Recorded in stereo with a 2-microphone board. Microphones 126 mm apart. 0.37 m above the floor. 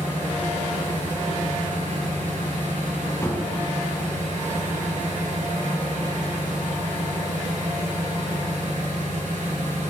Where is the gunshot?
25° left (ahead or behind), 1.8 m.